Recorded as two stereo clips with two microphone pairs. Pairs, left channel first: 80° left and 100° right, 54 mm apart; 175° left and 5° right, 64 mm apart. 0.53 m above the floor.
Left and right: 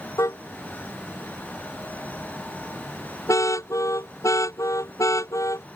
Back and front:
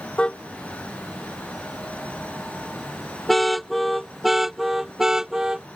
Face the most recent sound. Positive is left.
turn(degrees=75)